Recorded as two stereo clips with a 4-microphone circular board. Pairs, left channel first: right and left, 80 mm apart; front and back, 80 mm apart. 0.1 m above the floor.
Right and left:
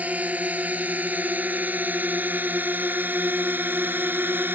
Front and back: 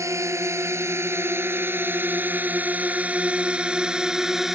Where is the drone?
150° left; by 4.6 s 100° left.